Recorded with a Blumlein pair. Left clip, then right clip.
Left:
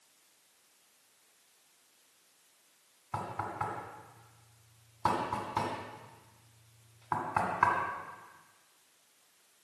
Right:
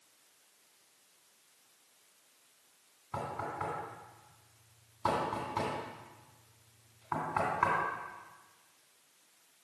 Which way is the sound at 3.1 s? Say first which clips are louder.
Left 1 dB; 15° left.